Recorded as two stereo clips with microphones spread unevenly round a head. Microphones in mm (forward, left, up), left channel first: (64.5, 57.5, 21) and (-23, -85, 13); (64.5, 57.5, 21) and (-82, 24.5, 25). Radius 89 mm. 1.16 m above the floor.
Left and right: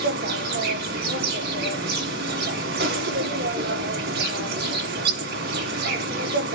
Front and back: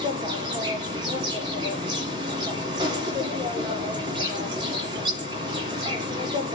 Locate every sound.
0.0 s an insect: 105° right, 1.7 m